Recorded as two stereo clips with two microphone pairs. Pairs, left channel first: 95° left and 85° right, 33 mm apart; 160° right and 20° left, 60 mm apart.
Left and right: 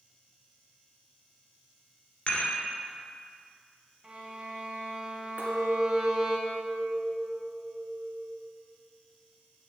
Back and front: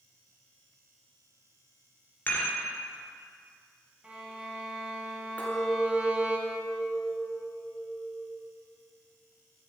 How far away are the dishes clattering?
About 2.5 m.